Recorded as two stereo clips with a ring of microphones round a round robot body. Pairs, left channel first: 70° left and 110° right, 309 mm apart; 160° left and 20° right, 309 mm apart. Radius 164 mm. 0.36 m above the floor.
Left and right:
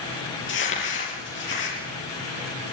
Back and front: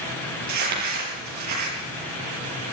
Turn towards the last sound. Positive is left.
turn(degrees=15)